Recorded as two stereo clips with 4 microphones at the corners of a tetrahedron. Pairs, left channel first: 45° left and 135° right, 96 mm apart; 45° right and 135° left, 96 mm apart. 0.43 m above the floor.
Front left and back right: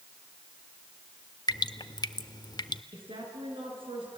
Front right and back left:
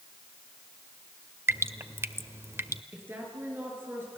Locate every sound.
1.5 s dripping: 80° left, 0.6 m
2.9 s a woman speaking: 160° right, 6 m